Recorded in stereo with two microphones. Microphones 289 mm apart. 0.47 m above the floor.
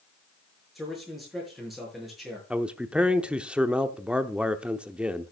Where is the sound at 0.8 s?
Centre (ahead or behind), 7 m.